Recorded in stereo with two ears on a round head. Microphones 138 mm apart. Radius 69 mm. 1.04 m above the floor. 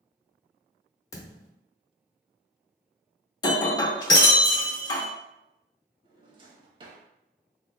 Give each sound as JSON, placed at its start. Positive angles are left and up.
{"t": 1.1, "sound": "a thud", "side_deg": 20, "distance_m": 0.7}
{"t": 3.4, "sound": "breaking glass", "side_deg": 30, "distance_m": 0.7}
{"t": 6.0, "sound": "a drawer", "side_deg": -30, "distance_m": 0.7}